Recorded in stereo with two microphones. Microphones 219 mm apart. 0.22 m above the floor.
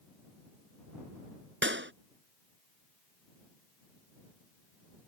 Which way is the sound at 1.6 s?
65° right (ahead or behind).